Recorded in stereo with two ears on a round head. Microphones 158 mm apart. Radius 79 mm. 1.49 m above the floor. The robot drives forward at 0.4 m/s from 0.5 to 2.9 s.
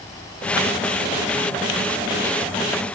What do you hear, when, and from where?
Only background noise.